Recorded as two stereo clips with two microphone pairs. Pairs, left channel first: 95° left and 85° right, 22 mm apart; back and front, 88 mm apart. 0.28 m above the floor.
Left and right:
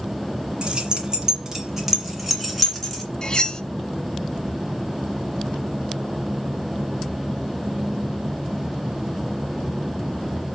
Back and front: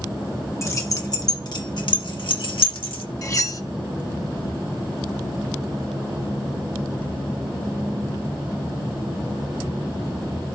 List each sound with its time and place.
0.6 s keys jangling: 130° right, 1.7 m; by 3.0 s straight behind, 2 m
3.2 s cutlery clinking: 140° left, 0.7 m